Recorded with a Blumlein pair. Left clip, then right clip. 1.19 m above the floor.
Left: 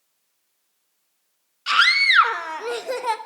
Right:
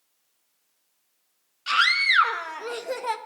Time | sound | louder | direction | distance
1.7 | a scream | left 4 dB | 15° left | 1.2 m